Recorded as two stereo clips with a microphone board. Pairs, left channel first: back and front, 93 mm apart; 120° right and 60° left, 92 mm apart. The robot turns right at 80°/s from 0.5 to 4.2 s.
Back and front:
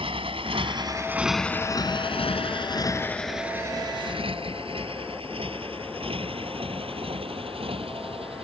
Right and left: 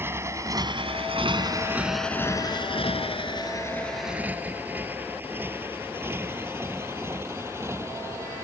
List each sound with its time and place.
0.0 s a motorcycle: 5° right; by 8.5 s straight ahead